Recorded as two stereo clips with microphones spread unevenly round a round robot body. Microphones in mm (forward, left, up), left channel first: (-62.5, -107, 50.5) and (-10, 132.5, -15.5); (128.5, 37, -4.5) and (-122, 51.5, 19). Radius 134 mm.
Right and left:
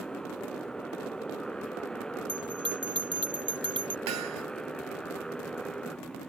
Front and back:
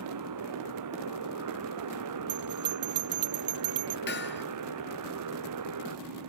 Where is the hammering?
45° left.